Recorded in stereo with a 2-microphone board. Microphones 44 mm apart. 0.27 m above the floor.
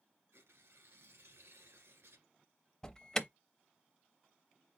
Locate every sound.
0.3 s tearing paper: 80° right, 1.9 m
2.8 s an alarm: 15° left (ahead or behind), 0.6 m